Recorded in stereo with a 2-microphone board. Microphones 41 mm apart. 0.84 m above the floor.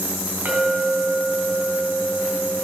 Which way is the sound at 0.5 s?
50° right (ahead or behind).